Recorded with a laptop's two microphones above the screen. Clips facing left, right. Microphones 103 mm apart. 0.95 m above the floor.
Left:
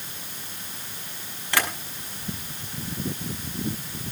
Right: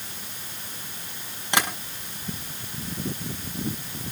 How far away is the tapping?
About 5.5 m.